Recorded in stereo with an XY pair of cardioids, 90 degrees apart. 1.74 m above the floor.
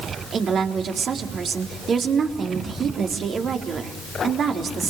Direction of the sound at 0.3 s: 60° right.